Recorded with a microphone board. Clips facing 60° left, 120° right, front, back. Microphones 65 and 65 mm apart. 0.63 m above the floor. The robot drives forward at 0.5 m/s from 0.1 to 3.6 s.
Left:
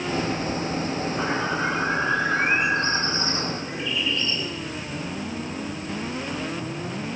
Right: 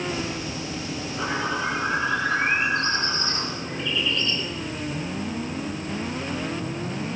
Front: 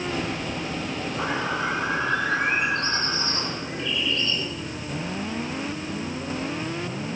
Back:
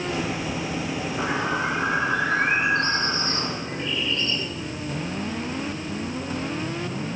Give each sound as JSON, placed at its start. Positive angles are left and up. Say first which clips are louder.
{"t": 1.1, "sound": "a bird", "louder": "right 1 dB, back 1 dB", "azimuth_deg": 125, "distance_m": 8.5}